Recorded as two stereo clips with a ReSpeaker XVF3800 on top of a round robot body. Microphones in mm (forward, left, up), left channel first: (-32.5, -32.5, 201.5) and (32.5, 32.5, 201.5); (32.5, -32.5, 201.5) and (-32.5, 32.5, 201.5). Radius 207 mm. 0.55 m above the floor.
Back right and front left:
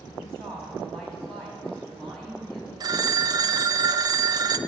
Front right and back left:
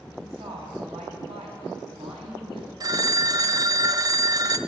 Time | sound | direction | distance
0.2 | a woman speaking | 140° left | 4 m
2.8 | a phone ringing | 90° left | 0.5 m